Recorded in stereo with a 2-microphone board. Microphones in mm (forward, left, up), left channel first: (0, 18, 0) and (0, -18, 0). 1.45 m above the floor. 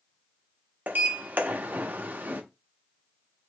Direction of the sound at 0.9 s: 50° right (ahead or behind).